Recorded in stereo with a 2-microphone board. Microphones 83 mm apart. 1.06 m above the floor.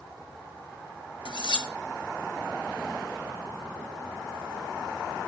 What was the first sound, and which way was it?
Cutlery clinking, 75° left (ahead or behind).